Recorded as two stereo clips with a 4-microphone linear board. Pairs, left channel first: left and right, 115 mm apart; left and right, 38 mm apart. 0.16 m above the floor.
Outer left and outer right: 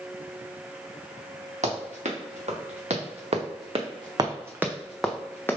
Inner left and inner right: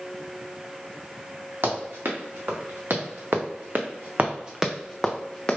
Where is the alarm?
I don't hear an alarm.